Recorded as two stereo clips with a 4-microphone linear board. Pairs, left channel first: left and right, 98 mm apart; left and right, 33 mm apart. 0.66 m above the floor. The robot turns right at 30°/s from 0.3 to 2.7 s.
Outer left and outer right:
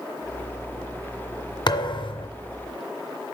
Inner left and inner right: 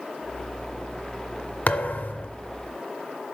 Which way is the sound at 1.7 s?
50° left (ahead or behind).